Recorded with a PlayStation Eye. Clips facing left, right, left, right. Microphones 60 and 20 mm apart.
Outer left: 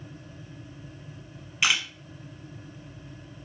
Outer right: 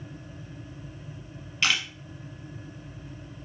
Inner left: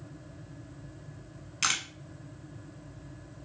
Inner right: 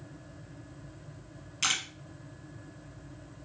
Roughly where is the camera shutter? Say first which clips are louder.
Outer left 1 dB, even; centre.